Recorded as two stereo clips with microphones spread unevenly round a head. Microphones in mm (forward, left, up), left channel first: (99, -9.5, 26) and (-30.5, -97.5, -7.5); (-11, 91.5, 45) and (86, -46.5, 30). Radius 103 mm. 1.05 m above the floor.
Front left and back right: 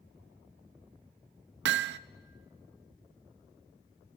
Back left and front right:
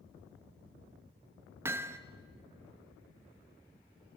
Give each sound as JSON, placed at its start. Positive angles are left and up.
{"t": 1.6, "sound": "hammering", "azimuth_deg": -135, "distance_m": 0.6}